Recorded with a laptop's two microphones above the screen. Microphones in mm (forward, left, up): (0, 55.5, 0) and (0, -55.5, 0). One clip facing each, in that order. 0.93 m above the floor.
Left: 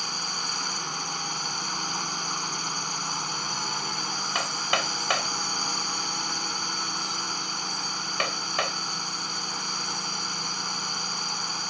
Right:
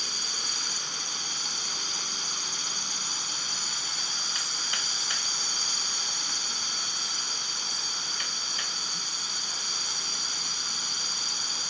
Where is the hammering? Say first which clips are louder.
Left 10 dB; 75° left (ahead or behind).